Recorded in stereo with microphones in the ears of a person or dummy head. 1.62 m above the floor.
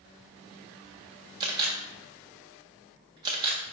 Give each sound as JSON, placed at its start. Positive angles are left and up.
{"t": 1.4, "sound": "a camera shutter", "side_deg": -30, "distance_m": 1.5}